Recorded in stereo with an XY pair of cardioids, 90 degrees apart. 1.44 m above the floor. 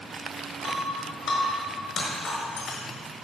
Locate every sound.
0.6 s breaking glass: 60° left, 4.5 m